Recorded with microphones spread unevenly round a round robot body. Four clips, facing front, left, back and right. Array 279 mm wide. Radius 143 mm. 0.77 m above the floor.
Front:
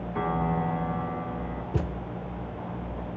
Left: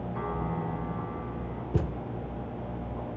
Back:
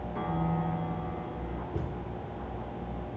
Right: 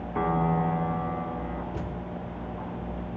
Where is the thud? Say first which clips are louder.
Left 4 dB, front 7 dB; 25° left, 0.5 m.